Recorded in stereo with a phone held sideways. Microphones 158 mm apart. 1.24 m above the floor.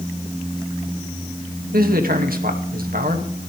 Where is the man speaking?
70° right (ahead or behind), 1.9 m.